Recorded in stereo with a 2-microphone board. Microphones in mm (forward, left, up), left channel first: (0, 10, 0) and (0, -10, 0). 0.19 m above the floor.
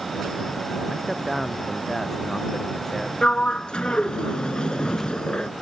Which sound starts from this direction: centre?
A man speaking, at 0.9 s.